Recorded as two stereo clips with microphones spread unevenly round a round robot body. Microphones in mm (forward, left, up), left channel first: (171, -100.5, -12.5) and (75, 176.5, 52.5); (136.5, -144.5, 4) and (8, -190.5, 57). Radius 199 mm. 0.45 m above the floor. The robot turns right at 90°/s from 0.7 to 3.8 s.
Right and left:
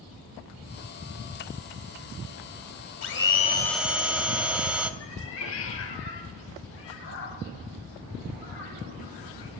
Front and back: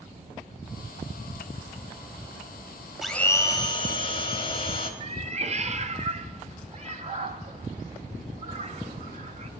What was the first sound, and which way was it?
A blender, 55° right.